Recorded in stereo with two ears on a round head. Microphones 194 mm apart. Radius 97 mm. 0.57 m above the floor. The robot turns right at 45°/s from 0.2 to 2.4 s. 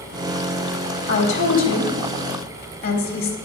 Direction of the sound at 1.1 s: 50° left (ahead or behind).